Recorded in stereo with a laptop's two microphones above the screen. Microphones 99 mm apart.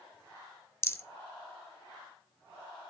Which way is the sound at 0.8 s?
25° left (ahead or behind).